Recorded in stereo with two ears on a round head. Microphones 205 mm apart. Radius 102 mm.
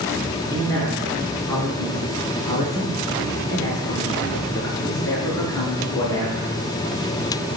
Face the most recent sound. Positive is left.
turn(degrees=15)  # may be behind; listen again after turning